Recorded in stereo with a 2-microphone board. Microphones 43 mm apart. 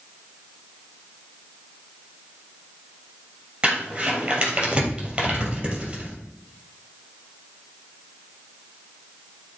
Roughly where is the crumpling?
Right.